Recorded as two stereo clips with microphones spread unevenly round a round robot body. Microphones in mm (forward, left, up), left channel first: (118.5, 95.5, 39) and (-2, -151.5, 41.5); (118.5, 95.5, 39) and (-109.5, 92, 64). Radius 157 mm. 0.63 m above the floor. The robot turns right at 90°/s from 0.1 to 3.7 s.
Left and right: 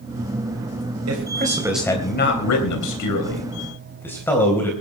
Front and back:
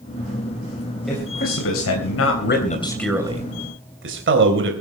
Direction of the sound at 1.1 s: 90° right.